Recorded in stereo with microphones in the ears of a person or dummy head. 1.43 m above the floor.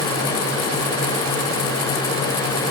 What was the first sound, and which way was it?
Only background noise.